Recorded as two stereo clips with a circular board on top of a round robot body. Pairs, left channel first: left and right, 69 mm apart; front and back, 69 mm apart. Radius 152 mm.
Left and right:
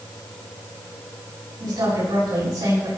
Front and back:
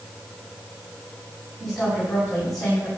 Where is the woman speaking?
90° right, 8.5 m.